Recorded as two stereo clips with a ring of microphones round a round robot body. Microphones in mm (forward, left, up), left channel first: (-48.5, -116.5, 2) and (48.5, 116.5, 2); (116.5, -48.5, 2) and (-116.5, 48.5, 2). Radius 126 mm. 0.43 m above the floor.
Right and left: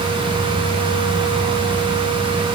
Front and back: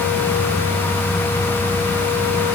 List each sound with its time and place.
Only background noise.